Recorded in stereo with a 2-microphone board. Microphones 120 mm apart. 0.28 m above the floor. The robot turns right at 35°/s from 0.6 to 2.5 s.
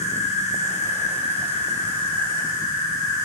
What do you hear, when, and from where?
0.0 s an insect: 85° left, 1.6 m; by 3.2 s 150° left, 1.6 m